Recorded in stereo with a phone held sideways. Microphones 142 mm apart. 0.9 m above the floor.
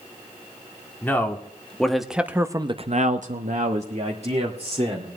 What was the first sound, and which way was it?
A man speaking, 15° left (ahead or behind).